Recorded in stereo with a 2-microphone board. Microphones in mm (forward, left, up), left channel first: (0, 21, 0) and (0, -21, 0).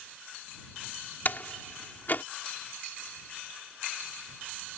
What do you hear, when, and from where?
1.2 s a door slam: 50° left (ahead or behind)